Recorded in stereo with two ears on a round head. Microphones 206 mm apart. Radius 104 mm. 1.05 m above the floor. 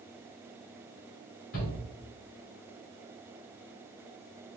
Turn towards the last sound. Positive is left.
turn(degrees=60)  # may be behind; listen again after turning